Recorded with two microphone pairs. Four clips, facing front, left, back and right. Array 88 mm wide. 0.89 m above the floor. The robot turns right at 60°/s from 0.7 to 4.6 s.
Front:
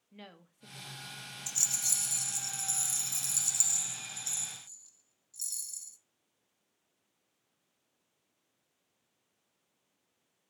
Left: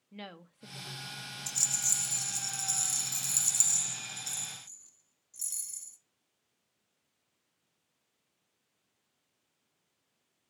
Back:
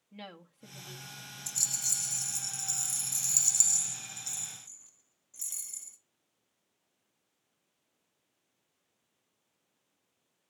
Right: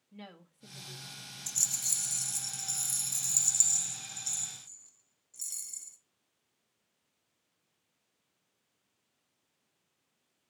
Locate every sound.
0.1 s a woman speaking: 110° left, 1.0 m; by 1.3 s 150° left, 1.0 m
1.5 s a rattle: 5° left, 0.5 m; by 6.0 s 165° right, 0.5 m